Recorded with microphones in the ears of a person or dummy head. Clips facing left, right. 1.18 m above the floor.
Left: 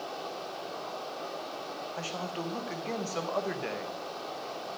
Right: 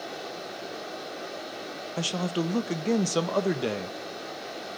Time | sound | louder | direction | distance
0.0 | running water | right 1 dB | 25° right (ahead or behind) | 3 m
2.0 | a man speaking | right 10 dB | 50° right (ahead or behind) | 1.1 m